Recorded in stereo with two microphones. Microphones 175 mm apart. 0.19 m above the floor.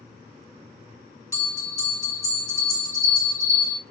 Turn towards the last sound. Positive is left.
turn(degrees=20)  # may be behind; listen again after turning